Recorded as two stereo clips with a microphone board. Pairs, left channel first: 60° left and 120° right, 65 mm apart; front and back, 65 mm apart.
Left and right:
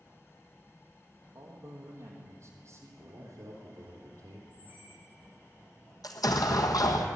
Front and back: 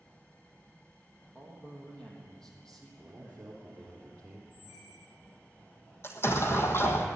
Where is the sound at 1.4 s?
80° right, 3.5 m.